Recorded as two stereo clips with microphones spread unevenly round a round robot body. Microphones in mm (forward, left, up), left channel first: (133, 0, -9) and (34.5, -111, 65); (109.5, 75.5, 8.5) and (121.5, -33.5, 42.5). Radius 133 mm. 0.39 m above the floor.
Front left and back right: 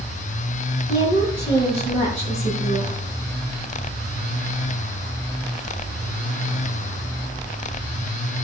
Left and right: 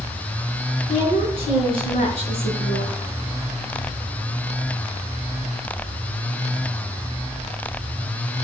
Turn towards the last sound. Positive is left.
turn(degrees=105)